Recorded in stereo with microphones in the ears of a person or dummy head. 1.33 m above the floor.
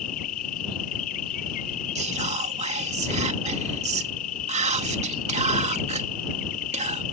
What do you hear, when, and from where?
0.0 s an insect: 40° left (ahead or behind)
1.9 s whispering: 35° right (ahead or behind)